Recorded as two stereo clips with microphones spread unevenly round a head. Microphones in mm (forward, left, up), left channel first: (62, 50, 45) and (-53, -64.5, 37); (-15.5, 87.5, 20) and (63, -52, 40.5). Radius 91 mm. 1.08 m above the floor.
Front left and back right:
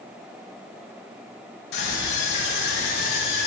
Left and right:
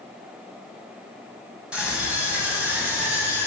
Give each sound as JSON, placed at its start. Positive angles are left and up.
{"t": 1.7, "sound": "a scream", "azimuth_deg": 25, "distance_m": 9.5}